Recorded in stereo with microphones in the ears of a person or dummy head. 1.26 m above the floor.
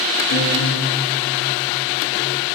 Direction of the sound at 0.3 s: 65° left (ahead or behind).